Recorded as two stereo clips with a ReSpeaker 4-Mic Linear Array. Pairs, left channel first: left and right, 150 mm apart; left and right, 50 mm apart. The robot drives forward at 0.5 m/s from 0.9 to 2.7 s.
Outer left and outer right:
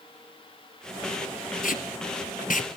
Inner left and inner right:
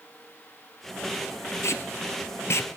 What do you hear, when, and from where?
1.6 s tape being pulled: 65° left (ahead or behind), 1.4 m; by 2.7 s 60° left (ahead or behind), 1.5 m